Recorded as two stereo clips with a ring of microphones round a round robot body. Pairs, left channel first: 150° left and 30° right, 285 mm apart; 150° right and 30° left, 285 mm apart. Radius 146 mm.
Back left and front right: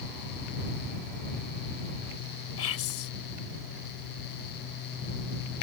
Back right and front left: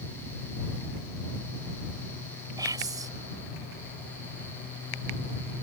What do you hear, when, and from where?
2.6 s whispering: 110° left